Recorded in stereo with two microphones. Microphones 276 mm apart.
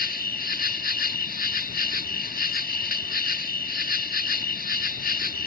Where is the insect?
35° left (ahead or behind).